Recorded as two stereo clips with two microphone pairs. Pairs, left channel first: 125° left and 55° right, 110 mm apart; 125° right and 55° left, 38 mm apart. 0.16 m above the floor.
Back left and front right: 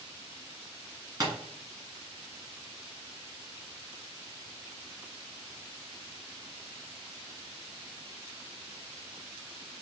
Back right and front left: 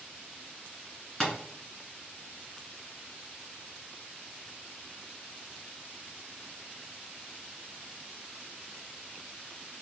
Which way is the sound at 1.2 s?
70° right.